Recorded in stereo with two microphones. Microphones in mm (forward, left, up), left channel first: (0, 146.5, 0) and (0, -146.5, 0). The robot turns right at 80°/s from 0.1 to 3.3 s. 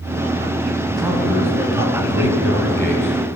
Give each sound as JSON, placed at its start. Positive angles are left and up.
{"t": 0.9, "sound": "a man speaking", "azimuth_deg": -25, "distance_m": 2.5}